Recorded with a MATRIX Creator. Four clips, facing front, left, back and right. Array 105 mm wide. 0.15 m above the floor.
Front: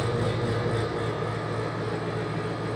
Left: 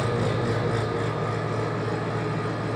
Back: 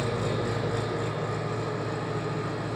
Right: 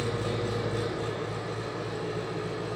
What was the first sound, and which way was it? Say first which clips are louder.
An engine running: left 5 dB, front 1 dB; 105° left.